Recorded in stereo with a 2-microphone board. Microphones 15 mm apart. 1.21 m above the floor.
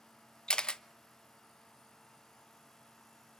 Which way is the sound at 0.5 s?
80° left.